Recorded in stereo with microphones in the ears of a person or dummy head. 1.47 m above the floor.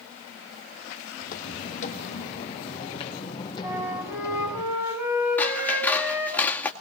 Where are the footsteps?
55° left (ahead or behind), 3.5 m; by 4.6 s 20° left (ahead or behind), 4 m.